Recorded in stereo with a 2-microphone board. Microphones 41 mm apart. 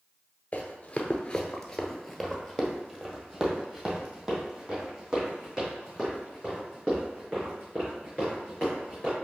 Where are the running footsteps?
35° left (ahead or behind), 0.8 m; by 9.2 s 25° right (ahead or behind), 4.5 m.